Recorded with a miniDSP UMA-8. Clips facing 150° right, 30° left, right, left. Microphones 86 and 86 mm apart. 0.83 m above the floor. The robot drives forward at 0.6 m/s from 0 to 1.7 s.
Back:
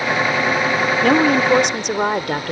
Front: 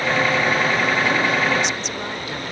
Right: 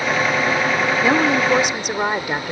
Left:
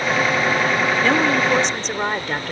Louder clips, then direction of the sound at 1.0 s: Back 5 dB, right 2 dB; 170° right.